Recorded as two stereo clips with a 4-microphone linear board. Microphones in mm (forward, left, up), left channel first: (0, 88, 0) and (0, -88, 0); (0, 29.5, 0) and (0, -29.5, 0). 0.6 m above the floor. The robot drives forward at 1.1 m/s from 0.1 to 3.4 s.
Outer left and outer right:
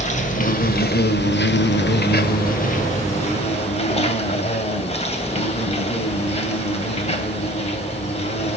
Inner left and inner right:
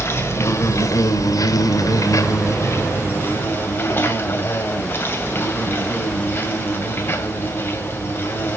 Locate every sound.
0.0 s an insect: 40° left (ahead or behind), 2 m; by 8.6 s 35° left (ahead or behind), 2.5 m